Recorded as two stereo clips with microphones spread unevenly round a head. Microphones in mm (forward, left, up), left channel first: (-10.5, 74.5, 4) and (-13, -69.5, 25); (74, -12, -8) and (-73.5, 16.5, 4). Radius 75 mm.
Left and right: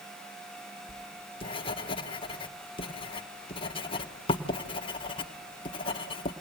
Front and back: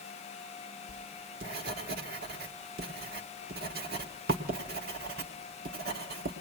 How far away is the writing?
About 1.6 m.